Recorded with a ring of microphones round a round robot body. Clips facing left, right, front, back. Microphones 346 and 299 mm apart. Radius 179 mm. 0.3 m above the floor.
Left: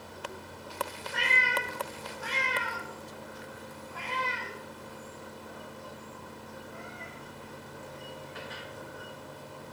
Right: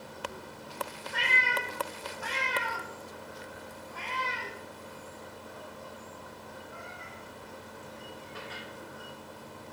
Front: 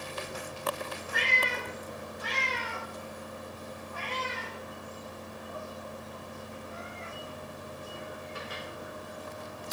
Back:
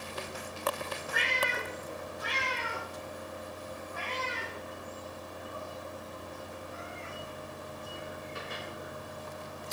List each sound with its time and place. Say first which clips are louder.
1.1 s a cat meowing: left 1 dB, even; 20° right, 5 m; by 8.6 s 50° right, 9 m